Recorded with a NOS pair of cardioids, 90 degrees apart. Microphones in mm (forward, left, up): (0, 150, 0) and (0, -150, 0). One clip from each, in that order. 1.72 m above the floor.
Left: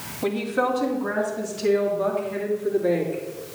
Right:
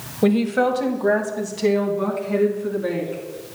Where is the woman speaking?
50° right, 1.3 m; by 3.2 s 65° right, 3.5 m.